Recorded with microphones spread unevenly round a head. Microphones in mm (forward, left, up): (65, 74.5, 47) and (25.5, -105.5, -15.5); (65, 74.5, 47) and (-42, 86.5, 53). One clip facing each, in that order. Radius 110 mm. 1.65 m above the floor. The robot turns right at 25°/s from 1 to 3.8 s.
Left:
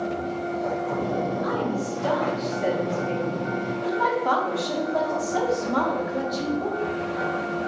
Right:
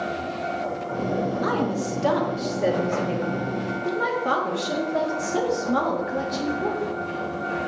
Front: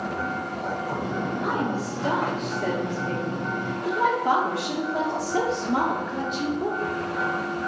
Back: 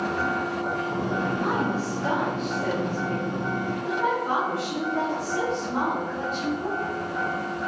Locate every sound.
1.4 s a woman speaking: 100° right, 1.6 m; by 6.8 s 40° right, 1.6 m